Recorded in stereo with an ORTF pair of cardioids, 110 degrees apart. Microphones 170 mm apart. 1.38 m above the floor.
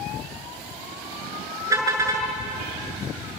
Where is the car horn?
20° right, 6.5 m.